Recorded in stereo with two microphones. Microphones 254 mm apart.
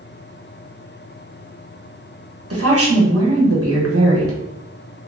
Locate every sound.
2.5 s a woman speaking: 60° right (ahead or behind), 1.0 m